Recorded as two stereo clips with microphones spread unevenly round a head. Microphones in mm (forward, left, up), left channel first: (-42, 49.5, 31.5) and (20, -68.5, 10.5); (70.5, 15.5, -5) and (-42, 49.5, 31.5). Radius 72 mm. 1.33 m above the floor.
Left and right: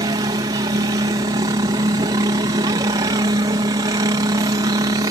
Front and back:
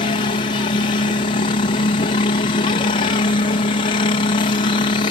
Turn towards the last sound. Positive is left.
turn(degrees=-5)